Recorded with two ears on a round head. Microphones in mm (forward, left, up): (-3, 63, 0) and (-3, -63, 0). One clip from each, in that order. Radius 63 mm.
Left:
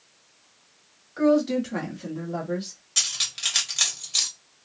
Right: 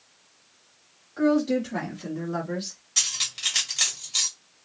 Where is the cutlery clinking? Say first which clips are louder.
Even; 10° left (ahead or behind), 1.2 m.